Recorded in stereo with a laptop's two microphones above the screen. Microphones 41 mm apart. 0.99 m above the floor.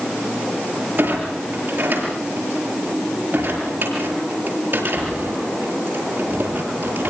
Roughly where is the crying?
I don't hear crying.